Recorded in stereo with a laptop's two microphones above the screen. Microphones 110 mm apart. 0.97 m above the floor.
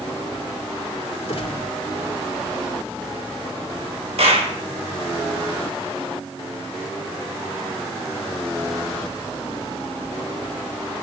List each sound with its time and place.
1.3 s a gunshot: 60° left (ahead or behind), 2.5 m
4.2 s a clap: 65° right (ahead or behind), 4 m